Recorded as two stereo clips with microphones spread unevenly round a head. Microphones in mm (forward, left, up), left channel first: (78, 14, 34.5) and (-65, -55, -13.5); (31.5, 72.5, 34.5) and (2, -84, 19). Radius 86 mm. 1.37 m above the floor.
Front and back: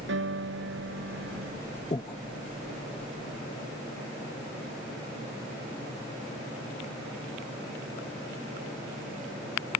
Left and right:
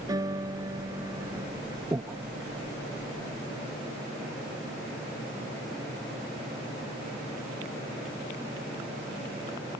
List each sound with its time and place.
0.1 s a piano: 170° right
1.9 s breathing: 25° right